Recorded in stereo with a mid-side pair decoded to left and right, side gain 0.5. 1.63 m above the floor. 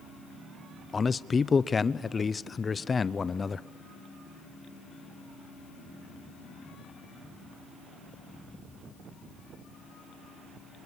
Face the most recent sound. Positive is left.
turn(degrees=30)